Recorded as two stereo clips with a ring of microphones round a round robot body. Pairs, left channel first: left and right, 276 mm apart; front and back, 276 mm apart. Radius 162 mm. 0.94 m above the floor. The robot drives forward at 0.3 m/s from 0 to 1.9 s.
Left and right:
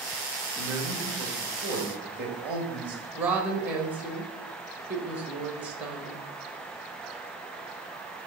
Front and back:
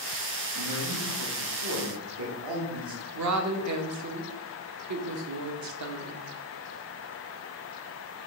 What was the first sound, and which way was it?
A man speaking, 175° right.